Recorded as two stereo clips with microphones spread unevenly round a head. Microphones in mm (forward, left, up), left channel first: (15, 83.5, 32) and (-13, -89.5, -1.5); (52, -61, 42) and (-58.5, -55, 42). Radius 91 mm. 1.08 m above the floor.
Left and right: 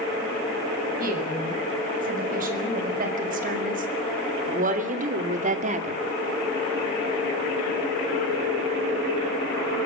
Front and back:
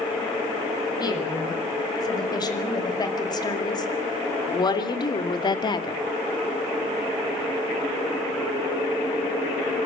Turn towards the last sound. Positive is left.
turn(degrees=-50)